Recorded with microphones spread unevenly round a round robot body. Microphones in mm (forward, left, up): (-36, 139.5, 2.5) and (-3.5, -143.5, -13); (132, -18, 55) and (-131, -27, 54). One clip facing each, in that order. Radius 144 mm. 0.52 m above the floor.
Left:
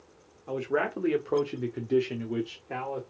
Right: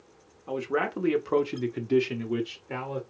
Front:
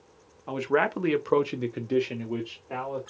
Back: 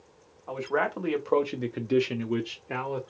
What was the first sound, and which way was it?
A man speaking, 5° right.